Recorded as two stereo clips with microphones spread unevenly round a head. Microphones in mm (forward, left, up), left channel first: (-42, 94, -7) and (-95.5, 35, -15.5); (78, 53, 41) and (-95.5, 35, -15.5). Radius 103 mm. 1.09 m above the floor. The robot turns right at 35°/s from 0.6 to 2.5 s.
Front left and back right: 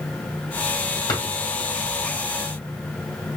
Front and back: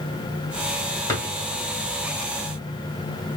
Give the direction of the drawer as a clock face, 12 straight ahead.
10 o'clock.